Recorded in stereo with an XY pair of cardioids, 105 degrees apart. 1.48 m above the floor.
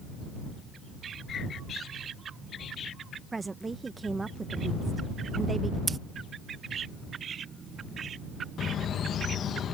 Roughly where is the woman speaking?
Ahead right.